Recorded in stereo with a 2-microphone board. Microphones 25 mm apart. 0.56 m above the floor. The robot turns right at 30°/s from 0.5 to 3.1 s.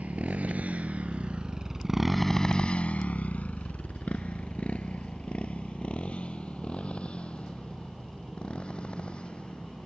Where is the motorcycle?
90° right; by 9.9 s 40° left (ahead or behind).